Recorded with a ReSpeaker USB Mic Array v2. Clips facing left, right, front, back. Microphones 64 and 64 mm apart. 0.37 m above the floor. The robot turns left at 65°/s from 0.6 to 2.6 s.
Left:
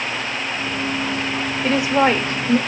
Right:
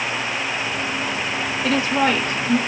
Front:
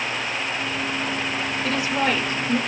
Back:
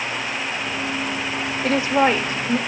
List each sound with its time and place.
1.6 s a woman speaking: 170° left, 1.1 m; by 2.6 s 105° left, 1.1 m